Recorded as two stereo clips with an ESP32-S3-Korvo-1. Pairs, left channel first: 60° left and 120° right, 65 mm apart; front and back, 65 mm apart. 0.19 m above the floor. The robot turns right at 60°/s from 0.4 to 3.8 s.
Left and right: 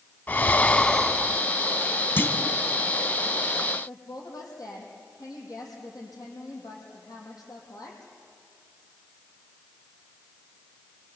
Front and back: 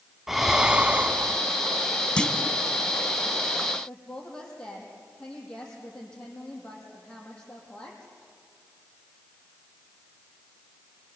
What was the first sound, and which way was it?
Breathing, 95° left.